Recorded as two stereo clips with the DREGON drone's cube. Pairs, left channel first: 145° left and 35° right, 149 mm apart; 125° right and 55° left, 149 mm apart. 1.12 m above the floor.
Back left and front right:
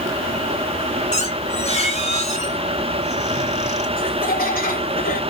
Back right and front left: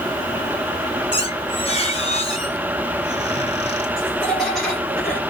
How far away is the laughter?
About 3.5 m.